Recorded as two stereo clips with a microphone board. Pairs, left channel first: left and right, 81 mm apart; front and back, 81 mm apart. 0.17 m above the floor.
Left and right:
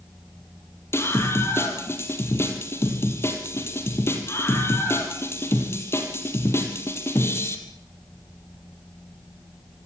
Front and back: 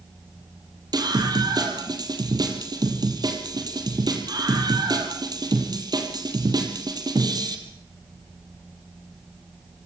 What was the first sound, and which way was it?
A scream, 145° left.